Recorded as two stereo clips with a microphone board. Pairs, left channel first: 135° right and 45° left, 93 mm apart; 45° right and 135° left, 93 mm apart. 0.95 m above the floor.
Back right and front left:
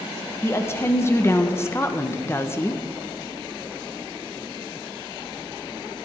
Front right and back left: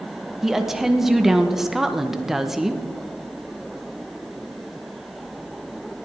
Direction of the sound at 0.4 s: 140° right.